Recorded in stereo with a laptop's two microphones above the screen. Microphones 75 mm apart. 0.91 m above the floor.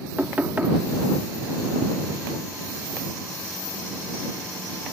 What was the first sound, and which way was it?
Knocking, 25° right (ahead or behind).